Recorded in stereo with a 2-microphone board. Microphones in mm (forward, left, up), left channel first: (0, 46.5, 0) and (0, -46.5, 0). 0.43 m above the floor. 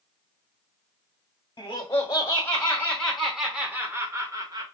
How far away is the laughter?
About 1.3 m.